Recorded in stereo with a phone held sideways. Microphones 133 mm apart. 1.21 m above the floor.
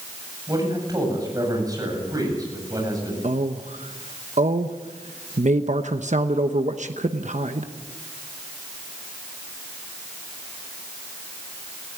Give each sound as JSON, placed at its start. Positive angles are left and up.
{"t": 0.5, "sound": "a man speaking", "side_deg": -30, "distance_m": 8.0}
{"t": 3.2, "sound": "a man speaking", "side_deg": -65, "distance_m": 1.0}